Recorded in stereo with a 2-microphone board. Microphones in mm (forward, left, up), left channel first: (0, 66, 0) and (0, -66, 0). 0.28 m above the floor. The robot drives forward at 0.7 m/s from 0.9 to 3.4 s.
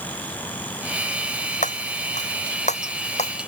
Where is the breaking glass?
75° left (ahead or behind); by 3.3 s 60° left (ahead or behind).